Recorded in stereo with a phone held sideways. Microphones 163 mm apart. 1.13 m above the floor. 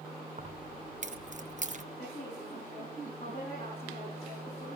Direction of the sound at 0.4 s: 50° right (ahead or behind).